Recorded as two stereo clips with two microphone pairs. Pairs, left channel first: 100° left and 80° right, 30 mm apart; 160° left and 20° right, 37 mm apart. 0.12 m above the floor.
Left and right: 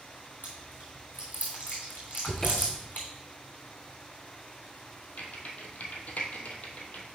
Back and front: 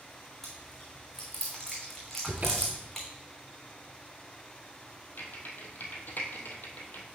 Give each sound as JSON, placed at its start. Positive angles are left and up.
{"t": 0.4, "sound": "chewing", "azimuth_deg": 80, "distance_m": 3.5}
{"t": 2.3, "sound": "a cupboard door", "azimuth_deg": 30, "distance_m": 1.1}
{"t": 5.2, "sound": "typing on a keyboard", "azimuth_deg": 125, "distance_m": 1.3}